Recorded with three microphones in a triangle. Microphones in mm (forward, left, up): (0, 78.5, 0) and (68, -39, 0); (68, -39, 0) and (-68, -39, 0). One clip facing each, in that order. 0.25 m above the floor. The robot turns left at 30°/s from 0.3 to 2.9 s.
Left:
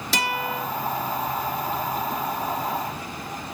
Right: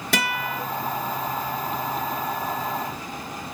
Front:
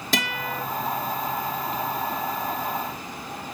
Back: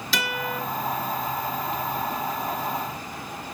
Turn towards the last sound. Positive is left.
turn(degrees=-120)